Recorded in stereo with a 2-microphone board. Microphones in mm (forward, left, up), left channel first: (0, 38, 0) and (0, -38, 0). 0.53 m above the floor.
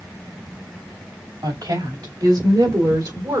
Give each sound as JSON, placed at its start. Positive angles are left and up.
{"t": 1.4, "sound": "a woman speaking", "side_deg": -70, "distance_m": 2.5}